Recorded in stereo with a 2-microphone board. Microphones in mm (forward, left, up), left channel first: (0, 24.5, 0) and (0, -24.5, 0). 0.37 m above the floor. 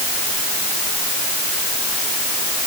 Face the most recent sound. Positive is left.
No sound to turn to.